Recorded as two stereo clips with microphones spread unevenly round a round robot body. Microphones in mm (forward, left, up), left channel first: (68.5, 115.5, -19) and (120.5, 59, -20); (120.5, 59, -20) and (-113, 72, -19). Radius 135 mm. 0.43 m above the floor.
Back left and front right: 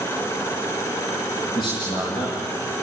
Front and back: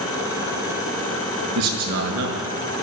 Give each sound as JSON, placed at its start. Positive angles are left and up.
{"t": 1.6, "sound": "a man speaking", "azimuth_deg": -175, "distance_m": 6.0}